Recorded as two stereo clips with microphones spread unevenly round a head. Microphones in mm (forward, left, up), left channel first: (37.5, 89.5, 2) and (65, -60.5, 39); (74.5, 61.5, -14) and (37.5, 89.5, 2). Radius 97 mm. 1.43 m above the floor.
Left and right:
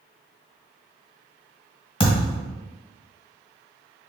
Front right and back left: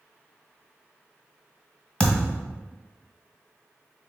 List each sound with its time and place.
2.0 s a thud: 40° left, 1.5 m